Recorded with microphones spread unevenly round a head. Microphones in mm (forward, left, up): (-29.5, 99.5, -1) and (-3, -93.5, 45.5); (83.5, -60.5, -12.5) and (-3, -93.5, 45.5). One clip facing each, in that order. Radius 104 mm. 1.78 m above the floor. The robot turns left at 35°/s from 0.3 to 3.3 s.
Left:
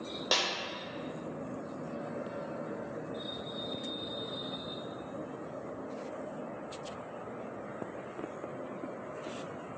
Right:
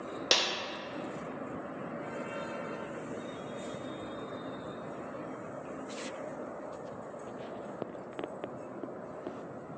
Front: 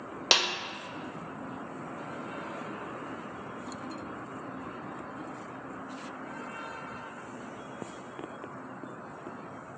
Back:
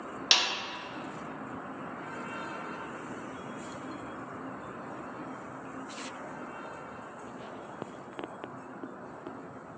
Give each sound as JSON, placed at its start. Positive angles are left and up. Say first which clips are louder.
{"t": 0.3, "sound": "a snare drum", "louder": "right 1 dB, front 4 dB", "azimuth_deg": -30, "distance_m": 0.8}